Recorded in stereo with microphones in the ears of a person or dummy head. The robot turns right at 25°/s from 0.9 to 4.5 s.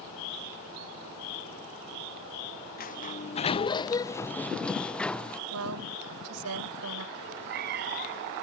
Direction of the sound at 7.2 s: 45° right (ahead or behind).